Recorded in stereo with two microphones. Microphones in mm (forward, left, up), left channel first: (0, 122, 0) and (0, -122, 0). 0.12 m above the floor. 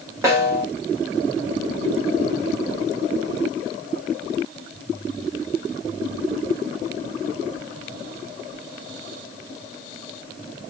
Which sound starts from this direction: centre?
A snare drum, at 0.2 s.